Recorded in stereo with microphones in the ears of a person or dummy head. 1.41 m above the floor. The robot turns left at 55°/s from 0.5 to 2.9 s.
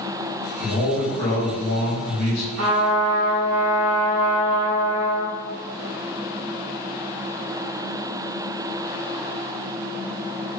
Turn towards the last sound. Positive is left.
turn(degrees=-55)  # may be behind; listen again after turning